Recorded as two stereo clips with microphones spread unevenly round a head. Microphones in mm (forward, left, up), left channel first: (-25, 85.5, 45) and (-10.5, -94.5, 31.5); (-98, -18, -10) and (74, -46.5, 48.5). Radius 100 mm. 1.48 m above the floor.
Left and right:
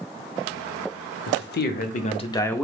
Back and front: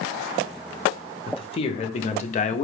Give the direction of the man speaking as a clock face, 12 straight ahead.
8 o'clock.